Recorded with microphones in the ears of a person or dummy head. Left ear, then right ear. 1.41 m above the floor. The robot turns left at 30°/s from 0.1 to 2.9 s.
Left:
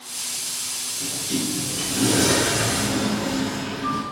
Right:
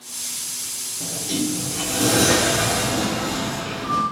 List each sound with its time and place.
1.0 s a sliding door: 105° right, 1.8 m; by 4.0 s 165° right, 1.8 m